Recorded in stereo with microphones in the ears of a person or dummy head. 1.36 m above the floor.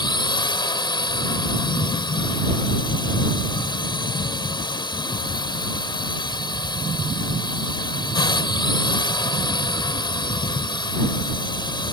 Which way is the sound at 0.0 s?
25° left (ahead or behind).